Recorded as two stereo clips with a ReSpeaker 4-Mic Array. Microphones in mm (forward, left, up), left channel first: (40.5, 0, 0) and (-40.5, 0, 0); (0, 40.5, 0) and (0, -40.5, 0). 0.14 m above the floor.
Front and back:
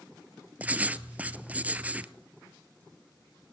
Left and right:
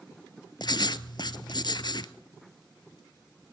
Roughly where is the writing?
Left.